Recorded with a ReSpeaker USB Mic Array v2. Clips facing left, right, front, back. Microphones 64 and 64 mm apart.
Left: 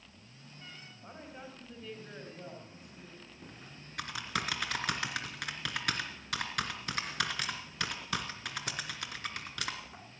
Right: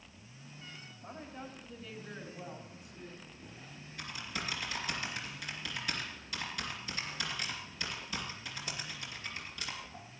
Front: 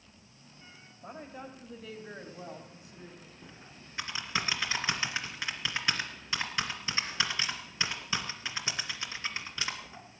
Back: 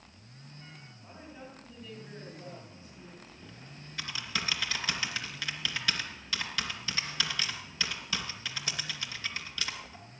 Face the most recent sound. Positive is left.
turn(degrees=65)